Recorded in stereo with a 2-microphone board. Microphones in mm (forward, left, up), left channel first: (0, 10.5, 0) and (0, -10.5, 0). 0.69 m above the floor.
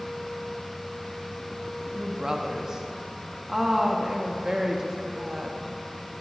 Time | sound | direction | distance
1.9 | a woman speaking | 20° right (ahead or behind) | 0.7 m